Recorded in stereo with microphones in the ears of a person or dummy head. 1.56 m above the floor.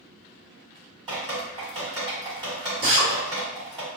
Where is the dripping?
25° right (ahead or behind), 1.6 m.